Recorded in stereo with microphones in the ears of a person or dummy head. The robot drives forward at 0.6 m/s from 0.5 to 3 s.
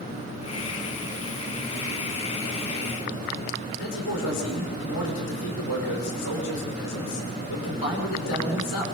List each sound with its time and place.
3.7 s a man speaking: 80° left, 5.5 m